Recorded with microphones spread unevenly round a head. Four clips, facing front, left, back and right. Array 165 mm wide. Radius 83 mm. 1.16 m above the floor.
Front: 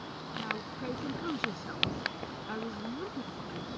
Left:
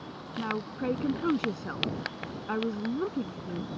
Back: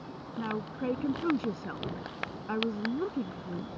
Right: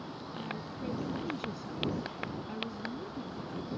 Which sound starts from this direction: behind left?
A woman speaking, at 0.4 s.